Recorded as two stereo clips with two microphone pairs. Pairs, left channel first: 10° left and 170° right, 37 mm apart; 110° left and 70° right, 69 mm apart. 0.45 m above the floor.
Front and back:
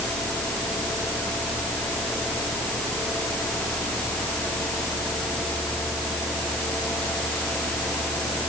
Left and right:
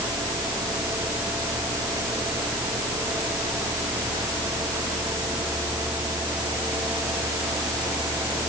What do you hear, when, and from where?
Only background noise.